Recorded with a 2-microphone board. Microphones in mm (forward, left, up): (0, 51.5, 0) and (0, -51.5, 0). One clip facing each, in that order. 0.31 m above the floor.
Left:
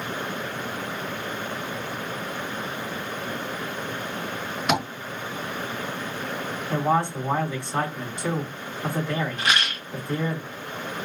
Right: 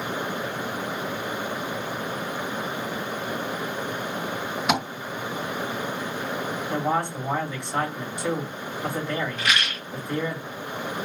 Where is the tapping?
5° right (ahead or behind), 3 m.